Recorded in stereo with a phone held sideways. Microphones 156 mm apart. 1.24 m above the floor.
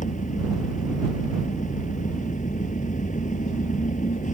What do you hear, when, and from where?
0.0 s an engine running: 55° left (ahead or behind)